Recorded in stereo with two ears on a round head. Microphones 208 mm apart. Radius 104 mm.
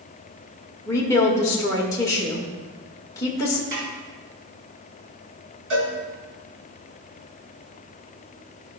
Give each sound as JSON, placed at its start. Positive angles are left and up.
{"t": 0.9, "sound": "a woman speaking", "side_deg": 15, "distance_m": 1.5}
{"t": 3.7, "sound": "a snare drum", "side_deg": -45, "distance_m": 3.5}
{"t": 5.7, "sound": "a cowbell", "side_deg": -55, "distance_m": 3.0}